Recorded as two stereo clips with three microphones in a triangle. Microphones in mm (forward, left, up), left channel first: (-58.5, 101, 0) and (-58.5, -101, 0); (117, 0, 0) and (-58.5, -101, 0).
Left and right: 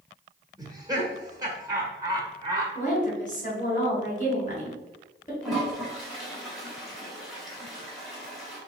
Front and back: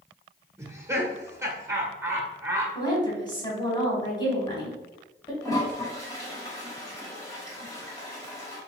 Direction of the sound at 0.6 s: 105° right.